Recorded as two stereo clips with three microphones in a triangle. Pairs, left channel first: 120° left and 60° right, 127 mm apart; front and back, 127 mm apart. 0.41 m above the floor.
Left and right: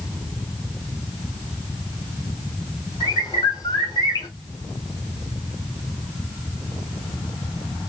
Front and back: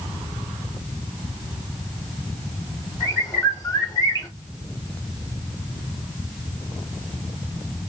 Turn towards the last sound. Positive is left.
turn(degrees=60)